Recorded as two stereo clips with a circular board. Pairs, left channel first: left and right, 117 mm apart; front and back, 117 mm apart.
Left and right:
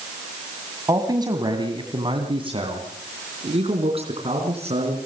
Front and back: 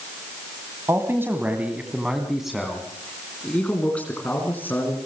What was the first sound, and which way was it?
A man speaking, 125° right.